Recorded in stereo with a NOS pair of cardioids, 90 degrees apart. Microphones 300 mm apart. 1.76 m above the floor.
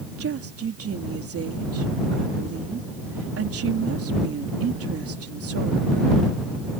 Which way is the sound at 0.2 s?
50° right.